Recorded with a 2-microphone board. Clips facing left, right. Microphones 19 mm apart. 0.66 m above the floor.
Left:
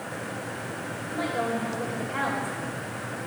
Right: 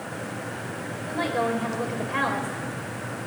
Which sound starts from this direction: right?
A woman speaking, at 1.1 s.